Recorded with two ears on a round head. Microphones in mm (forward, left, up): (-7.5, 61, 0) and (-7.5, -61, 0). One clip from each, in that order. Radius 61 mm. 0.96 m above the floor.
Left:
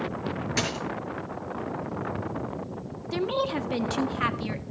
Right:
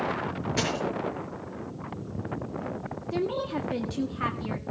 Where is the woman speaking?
50° left (ahead or behind), 1.5 m.